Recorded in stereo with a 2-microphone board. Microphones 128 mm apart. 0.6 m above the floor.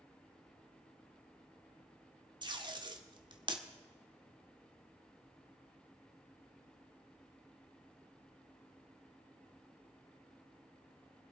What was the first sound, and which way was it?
Tape being pulled, 35° right (ahead or behind).